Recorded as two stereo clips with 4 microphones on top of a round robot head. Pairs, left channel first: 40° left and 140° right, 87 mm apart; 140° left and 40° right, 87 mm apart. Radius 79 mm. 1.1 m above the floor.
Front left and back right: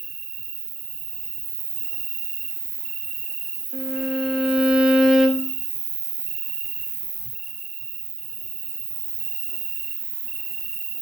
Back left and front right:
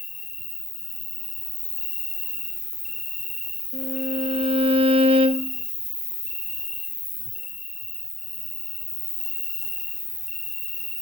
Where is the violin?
55° right, 0.6 m.